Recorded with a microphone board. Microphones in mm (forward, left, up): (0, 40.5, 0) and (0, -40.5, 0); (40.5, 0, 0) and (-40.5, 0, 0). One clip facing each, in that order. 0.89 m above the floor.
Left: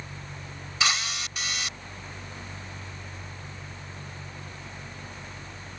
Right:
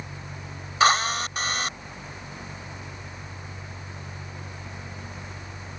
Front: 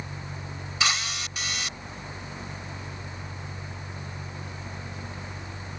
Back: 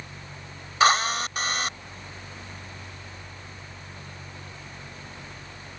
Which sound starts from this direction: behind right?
A drill, at 0.8 s.